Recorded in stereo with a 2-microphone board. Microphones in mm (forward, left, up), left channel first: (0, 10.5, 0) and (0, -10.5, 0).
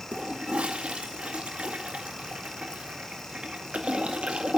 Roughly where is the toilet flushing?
Right.